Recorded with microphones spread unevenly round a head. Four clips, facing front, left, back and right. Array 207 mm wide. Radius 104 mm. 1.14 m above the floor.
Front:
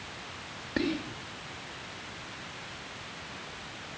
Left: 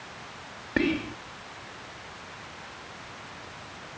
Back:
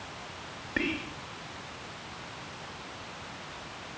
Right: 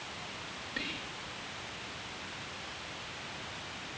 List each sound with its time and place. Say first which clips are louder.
0.8 s whispering: left 18 dB, front 2 dB; 80° left